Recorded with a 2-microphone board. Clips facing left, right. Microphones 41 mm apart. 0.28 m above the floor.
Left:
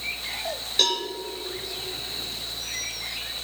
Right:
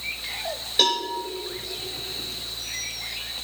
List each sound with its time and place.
0.8 s a cowbell: 10° right (ahead or behind), 4.5 m